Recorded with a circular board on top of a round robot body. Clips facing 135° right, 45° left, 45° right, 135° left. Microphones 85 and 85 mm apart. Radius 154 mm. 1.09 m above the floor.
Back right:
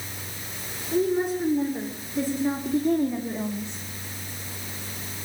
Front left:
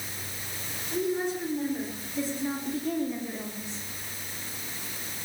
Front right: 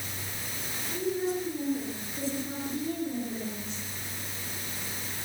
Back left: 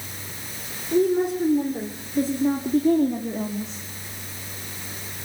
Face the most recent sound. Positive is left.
turn(degrees=155)